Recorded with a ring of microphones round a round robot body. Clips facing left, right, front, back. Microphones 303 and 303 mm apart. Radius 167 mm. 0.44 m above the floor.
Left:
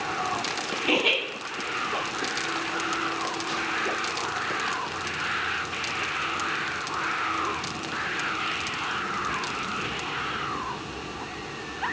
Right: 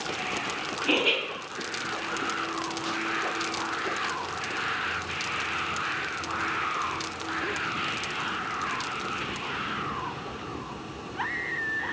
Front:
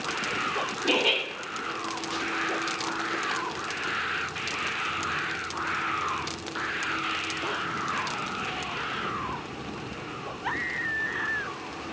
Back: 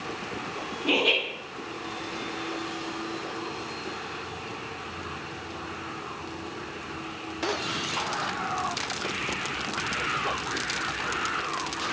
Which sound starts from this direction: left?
Laughter, at 0.8 s.